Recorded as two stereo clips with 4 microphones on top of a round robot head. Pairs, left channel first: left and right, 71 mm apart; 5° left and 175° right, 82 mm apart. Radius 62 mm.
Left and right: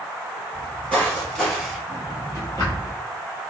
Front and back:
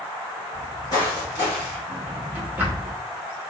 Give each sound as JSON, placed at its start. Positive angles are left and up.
{"t": 0.5, "sound": "footsteps", "azimuth_deg": 25, "distance_m": 1.9}
{"t": 1.9, "sound": "a drawer", "azimuth_deg": 125, "distance_m": 0.9}